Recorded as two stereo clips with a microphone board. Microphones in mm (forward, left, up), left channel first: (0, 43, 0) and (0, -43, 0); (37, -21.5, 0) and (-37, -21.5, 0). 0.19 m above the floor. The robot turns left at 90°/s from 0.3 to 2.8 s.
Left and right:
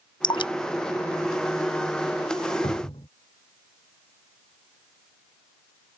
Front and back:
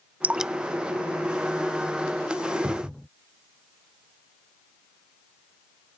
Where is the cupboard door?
105° left; by 3.1 s 90° left.